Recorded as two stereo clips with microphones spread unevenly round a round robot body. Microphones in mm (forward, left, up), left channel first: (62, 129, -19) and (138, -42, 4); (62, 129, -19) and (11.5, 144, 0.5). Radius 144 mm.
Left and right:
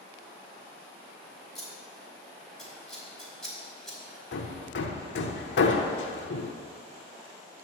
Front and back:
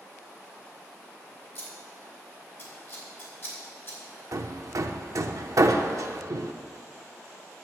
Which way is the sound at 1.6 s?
25° left.